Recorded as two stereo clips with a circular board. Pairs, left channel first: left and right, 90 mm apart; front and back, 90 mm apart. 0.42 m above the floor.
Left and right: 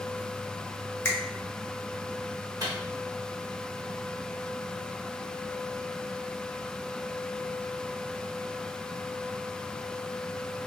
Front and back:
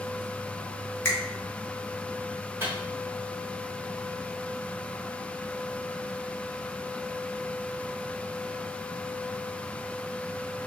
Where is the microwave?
125° right, 1.1 m.